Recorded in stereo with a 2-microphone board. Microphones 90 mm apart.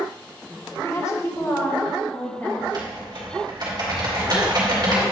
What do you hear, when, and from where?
0.8 s a woman speaking: 30° left (ahead or behind), 0.6 m; by 2.5 s 25° left (ahead or behind), 2 m
2.6 s typing on a keyboard: 50° right (ahead or behind), 1.8 m